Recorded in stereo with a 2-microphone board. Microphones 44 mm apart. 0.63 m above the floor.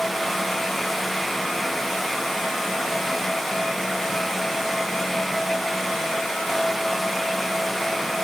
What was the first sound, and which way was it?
Only background noise.